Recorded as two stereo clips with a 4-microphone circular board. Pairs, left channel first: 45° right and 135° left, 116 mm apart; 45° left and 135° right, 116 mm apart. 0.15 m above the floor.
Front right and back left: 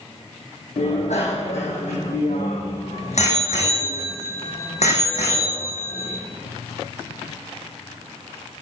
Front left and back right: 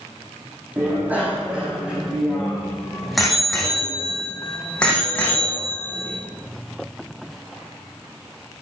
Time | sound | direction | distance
0.8 | a bicycle bell | 60° right | 4.5 m